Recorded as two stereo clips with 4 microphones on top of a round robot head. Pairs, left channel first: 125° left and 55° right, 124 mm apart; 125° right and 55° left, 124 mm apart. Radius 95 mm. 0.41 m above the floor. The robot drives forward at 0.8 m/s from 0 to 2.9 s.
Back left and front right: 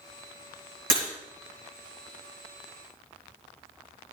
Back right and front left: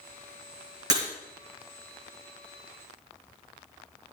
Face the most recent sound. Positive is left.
turn(degrees=-5)